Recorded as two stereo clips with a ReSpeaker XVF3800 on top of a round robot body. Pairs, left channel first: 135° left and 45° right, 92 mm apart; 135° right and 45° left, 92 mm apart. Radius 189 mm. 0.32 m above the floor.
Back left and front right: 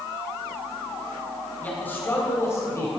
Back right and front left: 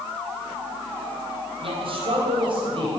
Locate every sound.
1.6 s a man speaking: 65° left, 3 m; by 2.9 s 85° left, 3 m